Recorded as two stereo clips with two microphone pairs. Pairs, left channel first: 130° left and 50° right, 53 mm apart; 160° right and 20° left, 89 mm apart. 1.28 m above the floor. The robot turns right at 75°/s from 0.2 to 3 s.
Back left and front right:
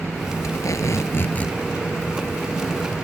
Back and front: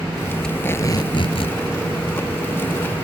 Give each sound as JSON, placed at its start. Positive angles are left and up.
{"t": 0.4, "sound": "tape being pulled", "azimuth_deg": 115}